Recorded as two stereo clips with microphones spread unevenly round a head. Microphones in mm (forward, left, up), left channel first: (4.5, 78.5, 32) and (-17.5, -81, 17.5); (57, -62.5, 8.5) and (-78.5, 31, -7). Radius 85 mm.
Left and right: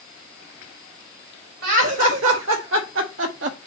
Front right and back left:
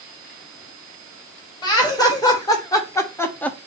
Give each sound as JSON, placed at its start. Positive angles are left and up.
{"t": 1.6, "sound": "laughter", "azimuth_deg": -100, "distance_m": 2.5}